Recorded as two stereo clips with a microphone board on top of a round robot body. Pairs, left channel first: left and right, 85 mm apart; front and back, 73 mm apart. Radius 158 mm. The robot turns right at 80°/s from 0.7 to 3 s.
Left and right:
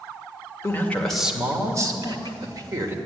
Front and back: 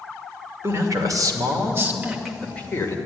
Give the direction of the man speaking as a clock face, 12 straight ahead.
7 o'clock.